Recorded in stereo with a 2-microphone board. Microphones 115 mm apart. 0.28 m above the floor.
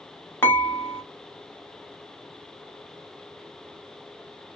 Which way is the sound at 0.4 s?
15° left (ahead or behind).